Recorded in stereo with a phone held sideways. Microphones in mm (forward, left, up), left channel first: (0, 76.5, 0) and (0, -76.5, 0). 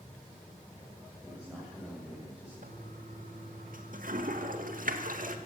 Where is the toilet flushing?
65° right (ahead or behind), 2 m.